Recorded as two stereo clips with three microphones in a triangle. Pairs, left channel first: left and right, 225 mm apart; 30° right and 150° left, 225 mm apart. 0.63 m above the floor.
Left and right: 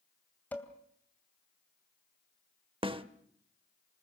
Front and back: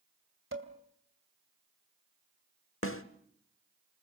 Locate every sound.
0.5 s dishes clattering: 170° left, 2.5 m
2.8 s a snare drum: 25° right, 1.1 m